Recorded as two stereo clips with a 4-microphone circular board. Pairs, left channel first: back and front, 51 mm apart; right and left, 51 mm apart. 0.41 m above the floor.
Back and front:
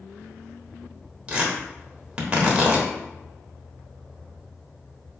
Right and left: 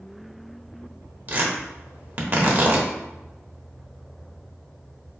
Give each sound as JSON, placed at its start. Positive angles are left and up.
{"t": 1.3, "sound": "tearing paper", "azimuth_deg": 60, "distance_m": 1.0}